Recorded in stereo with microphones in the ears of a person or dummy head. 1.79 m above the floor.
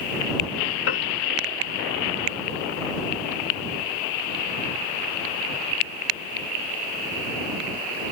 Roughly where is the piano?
Left.